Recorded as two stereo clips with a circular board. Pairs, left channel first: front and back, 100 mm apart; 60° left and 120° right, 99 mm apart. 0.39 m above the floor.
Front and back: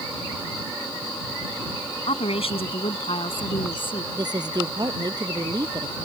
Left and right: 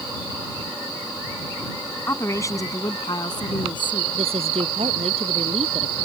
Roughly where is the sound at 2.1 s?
Ahead.